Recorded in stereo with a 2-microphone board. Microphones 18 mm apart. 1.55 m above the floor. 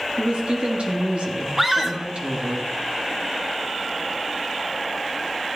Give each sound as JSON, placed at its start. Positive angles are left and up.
{"t": 0.2, "sound": "a woman speaking", "side_deg": -75, "distance_m": 2.5}
{"t": 1.6, "sound": "a scream", "side_deg": -15, "distance_m": 2.0}